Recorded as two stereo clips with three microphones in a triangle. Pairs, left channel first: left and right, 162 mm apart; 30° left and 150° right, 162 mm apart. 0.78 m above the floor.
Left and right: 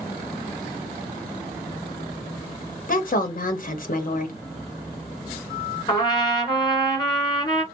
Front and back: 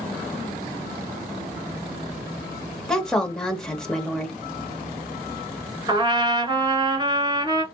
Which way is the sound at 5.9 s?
150° left.